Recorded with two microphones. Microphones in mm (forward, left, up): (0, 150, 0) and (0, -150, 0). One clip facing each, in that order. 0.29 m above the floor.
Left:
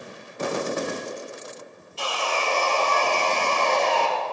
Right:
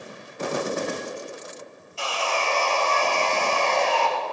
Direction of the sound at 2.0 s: 45° left (ahead or behind).